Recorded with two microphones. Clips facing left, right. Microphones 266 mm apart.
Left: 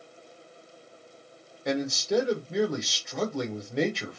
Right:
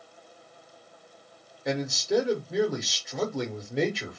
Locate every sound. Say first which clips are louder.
1.6 s a man speaking: even; centre (ahead or behind), 0.9 m